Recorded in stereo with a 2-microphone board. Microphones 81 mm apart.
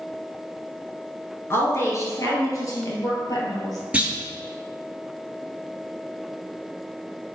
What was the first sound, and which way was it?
A woman speaking, 35° left (ahead or behind).